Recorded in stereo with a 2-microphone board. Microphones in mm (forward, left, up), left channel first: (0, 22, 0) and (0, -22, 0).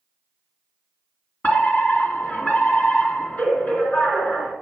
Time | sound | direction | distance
1.4 | a fire alarm | 35° left (ahead or behind) | 2.5 m